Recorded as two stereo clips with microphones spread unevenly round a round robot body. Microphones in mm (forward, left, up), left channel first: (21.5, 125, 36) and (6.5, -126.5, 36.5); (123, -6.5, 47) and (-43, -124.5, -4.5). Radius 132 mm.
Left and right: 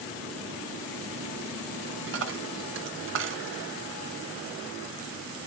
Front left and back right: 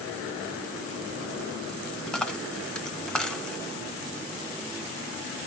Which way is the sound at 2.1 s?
55° right.